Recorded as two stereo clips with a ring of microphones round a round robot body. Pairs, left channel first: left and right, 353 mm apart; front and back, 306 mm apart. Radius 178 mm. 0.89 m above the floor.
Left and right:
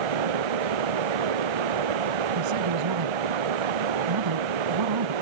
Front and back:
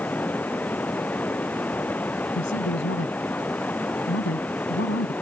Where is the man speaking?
60° right.